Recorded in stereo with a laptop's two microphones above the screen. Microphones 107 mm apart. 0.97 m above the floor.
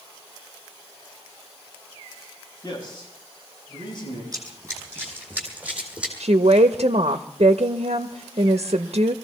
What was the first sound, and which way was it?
A man speaking, 40° left (ahead or behind).